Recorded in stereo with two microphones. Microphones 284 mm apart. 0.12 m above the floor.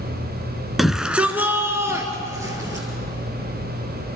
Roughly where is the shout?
Centre.